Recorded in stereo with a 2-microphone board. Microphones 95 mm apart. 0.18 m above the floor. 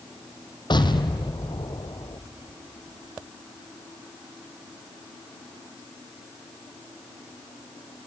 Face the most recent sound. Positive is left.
turn(degrees=50)  # may be behind; listen again after turning